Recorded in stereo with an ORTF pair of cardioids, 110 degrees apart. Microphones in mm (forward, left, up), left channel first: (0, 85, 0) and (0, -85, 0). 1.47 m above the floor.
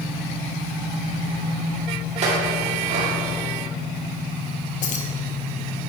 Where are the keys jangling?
50° left, 1.0 m.